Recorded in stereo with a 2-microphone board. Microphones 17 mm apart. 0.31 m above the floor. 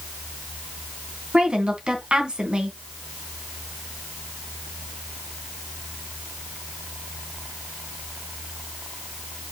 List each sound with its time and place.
1.3 s a woman speaking: 60° right (ahead or behind), 3 m